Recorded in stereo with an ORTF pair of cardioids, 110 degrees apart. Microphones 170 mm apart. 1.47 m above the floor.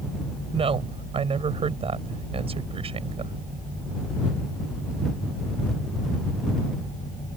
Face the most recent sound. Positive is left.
turn(degrees=-35)